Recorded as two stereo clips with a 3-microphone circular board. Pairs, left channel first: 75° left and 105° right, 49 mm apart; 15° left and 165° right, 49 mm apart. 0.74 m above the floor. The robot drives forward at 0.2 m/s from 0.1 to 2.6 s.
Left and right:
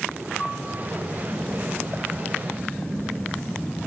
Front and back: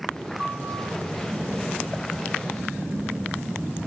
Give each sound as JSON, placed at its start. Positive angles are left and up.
{"t": 0.4, "sound": "a piano", "azimuth_deg": 160, "distance_m": 5.0}